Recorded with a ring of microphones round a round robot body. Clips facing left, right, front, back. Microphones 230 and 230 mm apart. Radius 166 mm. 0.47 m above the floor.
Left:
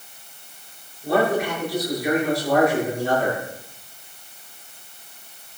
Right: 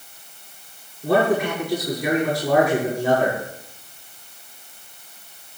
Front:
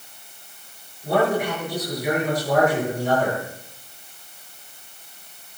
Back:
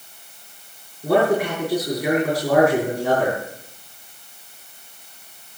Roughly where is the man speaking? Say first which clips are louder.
Right 2 dB, back 3 dB; behind right.